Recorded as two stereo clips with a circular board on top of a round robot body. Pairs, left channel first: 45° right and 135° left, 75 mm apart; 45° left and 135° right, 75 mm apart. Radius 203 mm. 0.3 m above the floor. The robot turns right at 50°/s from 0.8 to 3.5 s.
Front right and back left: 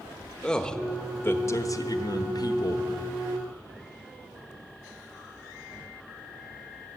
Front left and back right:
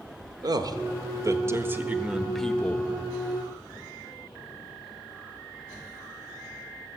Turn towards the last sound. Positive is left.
turn(degrees=15)